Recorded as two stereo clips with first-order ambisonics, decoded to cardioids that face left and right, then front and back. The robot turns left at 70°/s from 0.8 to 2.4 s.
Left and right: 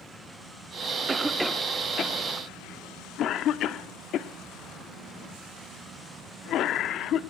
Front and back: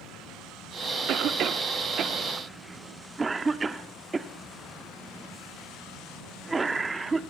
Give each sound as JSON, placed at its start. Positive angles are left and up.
{"t": 1.1, "sound": "a cough", "azimuth_deg": -160, "distance_m": 1.1}